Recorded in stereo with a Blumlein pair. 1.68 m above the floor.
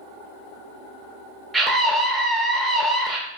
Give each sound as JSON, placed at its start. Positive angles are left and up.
{"t": 1.5, "sound": "a scream", "azimuth_deg": -10, "distance_m": 0.7}